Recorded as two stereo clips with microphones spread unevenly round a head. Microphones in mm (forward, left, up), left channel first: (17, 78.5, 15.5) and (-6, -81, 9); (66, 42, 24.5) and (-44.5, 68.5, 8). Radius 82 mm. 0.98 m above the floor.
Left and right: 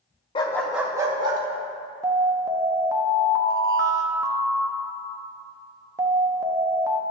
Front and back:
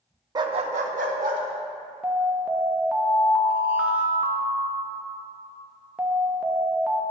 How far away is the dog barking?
About 0.5 m.